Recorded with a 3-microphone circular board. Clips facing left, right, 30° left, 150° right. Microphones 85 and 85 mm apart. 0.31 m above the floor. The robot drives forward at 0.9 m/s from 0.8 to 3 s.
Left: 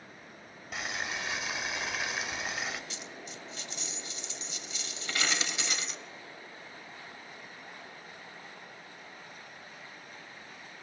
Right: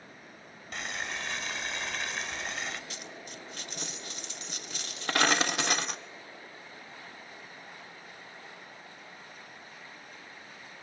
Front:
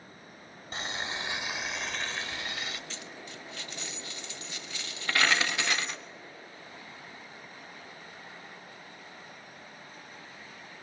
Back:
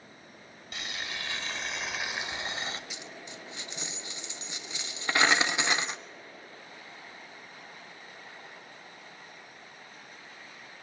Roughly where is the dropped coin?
Right.